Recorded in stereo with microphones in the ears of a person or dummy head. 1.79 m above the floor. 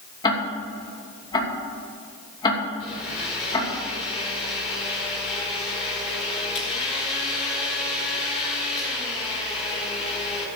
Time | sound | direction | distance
0.2 | ticking | 25° left (ahead or behind) | 2.5 m
2.8 | a blender | 40° left (ahead or behind) | 4.5 m